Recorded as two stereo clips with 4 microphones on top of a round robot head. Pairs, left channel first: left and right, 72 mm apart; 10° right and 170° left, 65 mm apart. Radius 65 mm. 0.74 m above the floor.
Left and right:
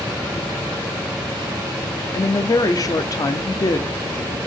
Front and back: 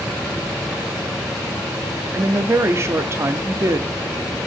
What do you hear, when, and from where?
2.1 s a woman speaking: 125° left, 1.1 m